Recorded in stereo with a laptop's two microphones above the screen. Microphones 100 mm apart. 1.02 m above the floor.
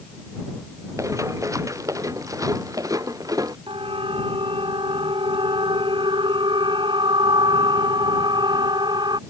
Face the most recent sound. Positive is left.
turn(degrees=-45)  # may be behind; listen again after turning